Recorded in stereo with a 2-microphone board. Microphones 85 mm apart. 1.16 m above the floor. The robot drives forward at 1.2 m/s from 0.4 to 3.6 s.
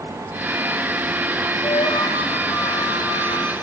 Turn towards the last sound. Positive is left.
turn(degrees=65)  # may be behind; listen again after turning